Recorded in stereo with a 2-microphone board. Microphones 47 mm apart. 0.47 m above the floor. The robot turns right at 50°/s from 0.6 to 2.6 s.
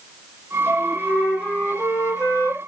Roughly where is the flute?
Ahead left.